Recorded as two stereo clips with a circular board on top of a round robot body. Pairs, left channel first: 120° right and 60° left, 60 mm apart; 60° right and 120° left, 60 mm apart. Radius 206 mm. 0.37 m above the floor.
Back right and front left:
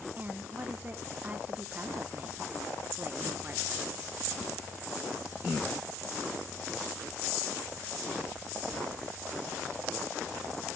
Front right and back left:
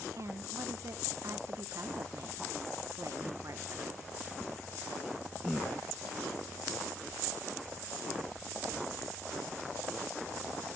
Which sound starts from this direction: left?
A woman speaking, at 0.2 s.